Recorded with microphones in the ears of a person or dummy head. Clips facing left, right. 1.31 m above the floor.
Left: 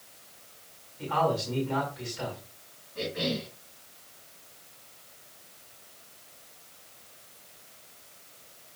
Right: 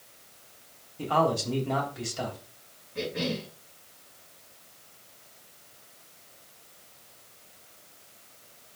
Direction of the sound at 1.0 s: 70° right (ahead or behind).